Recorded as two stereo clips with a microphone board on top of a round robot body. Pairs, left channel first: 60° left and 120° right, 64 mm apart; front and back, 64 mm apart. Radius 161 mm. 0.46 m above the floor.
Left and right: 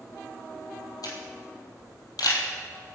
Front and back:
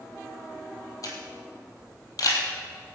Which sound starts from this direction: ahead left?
A camera shutter, at 1.0 s.